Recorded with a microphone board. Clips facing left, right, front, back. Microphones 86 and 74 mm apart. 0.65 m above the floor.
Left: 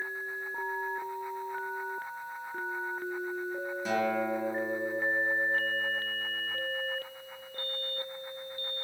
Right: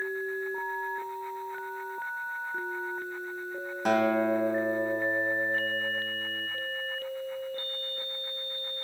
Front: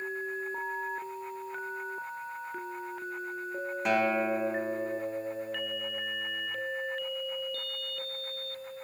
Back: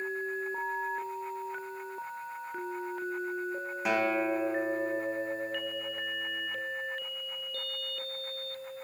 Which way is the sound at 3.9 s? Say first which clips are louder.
Right 6 dB, front 1 dB; 95° right.